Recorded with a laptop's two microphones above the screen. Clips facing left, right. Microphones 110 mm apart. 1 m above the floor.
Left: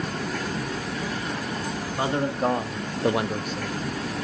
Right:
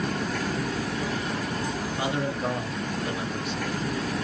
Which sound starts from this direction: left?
A man speaking, at 2.0 s.